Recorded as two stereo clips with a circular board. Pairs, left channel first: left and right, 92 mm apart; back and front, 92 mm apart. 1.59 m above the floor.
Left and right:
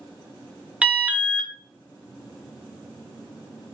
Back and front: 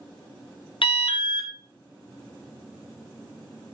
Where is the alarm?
170° right, 0.6 m.